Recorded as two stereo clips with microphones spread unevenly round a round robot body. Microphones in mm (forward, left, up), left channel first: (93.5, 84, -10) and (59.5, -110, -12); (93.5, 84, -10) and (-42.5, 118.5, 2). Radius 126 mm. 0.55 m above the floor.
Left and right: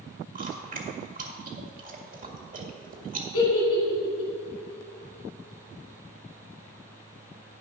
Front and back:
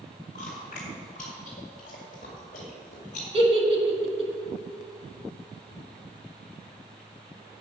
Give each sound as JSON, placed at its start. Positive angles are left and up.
{"t": 0.3, "sound": "chewing", "azimuth_deg": -60, "distance_m": 2.0}
{"t": 3.3, "sound": "a giggle", "azimuth_deg": 115, "distance_m": 2.5}